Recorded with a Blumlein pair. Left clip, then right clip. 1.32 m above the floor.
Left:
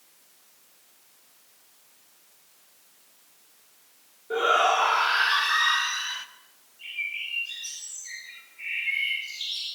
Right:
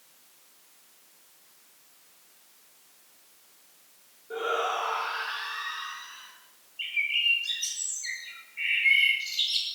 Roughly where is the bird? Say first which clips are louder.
Right 6 dB; ahead right.